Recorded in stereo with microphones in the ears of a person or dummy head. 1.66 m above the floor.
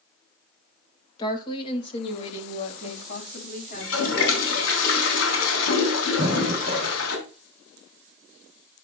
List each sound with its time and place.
1.2 s a woman speaking: 25° left (ahead or behind), 2 m; by 4.2 s 50° left (ahead or behind), 5 m
3.7 s a toilet flushing: 80° left, 3.5 m
6.2 s breathing: 30° right (ahead or behind), 3 m